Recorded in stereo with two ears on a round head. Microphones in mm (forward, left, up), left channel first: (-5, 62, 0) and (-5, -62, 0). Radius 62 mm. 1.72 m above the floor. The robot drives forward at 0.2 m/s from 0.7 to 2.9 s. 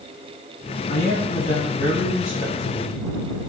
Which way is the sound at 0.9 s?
85° left.